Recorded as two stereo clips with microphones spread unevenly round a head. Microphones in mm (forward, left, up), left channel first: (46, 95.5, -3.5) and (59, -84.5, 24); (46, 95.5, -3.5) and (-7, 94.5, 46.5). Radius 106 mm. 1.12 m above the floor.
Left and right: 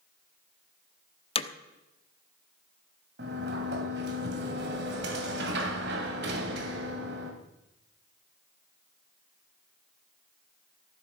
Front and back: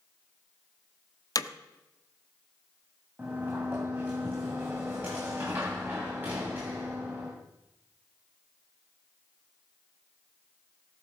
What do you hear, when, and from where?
1.4 s hammering: 35° left, 1.2 m
3.2 s a sliding door: 120° right, 2 m